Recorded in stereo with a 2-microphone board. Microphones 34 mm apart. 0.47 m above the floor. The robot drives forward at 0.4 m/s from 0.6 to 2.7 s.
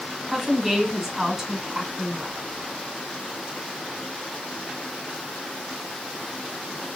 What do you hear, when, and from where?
0.3 s a woman speaking: 20° right (ahead or behind), 1.9 m; by 2.4 s 25° right (ahead or behind), 1.4 m